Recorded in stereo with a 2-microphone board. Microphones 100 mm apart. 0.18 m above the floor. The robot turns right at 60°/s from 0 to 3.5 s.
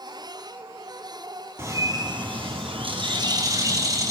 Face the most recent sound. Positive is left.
turn(degrees=-40)